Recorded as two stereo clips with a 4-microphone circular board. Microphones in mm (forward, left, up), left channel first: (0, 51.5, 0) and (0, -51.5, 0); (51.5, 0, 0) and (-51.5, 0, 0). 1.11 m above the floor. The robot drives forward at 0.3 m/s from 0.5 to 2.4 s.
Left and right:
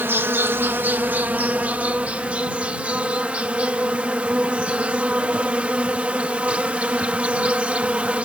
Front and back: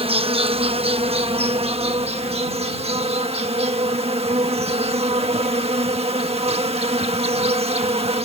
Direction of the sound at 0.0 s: 160° right.